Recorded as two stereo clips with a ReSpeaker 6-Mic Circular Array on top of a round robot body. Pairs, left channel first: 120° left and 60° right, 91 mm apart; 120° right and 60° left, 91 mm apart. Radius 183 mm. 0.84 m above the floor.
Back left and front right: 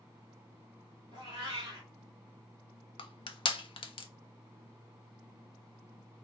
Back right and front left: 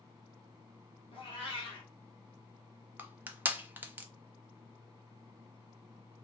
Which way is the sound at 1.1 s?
105° right.